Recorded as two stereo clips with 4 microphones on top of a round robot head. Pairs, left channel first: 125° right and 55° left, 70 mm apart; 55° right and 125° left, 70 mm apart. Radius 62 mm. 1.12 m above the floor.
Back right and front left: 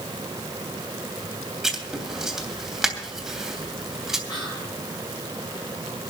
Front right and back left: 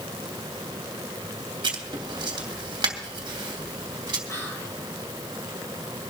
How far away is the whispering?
About 8.5 m.